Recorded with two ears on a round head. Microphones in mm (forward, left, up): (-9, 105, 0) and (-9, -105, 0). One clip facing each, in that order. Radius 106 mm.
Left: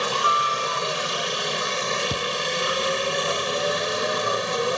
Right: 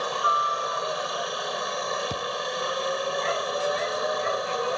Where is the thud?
20° left (ahead or behind).